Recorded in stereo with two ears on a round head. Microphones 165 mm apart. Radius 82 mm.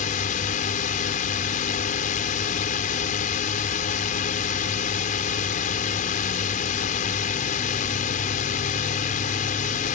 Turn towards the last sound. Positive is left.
turn(degrees=45)  # may be behind; listen again after turning